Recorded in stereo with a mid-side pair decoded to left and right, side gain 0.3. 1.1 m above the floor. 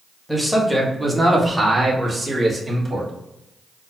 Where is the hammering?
No hammering in this recording.